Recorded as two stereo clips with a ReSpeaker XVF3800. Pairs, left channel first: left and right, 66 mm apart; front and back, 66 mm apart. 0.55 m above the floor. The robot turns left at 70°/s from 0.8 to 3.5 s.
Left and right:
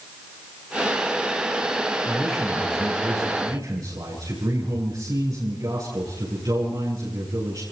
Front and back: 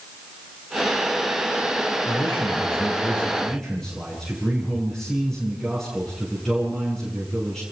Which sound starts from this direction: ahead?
A man speaking, at 2.0 s.